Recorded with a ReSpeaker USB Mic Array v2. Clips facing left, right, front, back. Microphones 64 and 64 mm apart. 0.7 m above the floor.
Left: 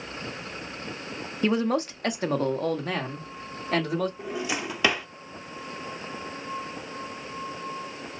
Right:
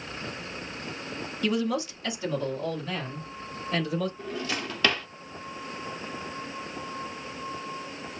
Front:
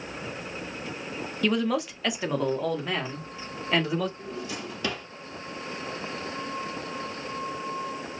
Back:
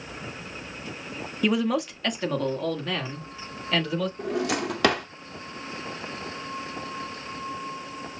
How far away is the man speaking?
About 0.8 m.